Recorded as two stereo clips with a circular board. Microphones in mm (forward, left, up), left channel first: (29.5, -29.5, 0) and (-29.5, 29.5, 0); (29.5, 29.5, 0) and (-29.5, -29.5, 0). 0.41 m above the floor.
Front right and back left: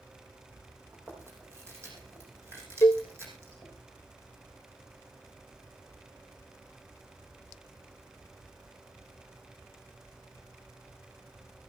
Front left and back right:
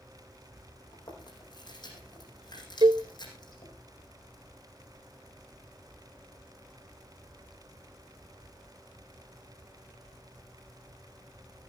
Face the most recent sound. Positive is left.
turn(degrees=-105)